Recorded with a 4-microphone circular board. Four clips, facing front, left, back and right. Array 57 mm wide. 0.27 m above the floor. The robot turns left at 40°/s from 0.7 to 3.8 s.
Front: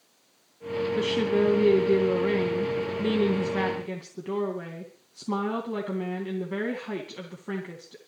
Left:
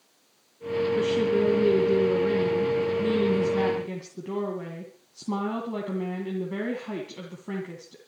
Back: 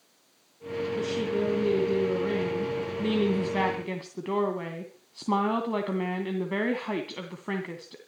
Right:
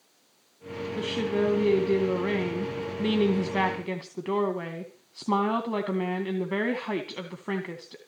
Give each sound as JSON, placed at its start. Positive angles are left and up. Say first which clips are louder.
{"t": 1.0, "sound": "a woman speaking", "louder": "left 2 dB, front 5 dB", "azimuth_deg": -15, "distance_m": 2.0}